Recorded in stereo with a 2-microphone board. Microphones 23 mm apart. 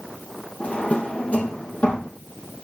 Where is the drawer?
70° left (ahead or behind), 3.5 m.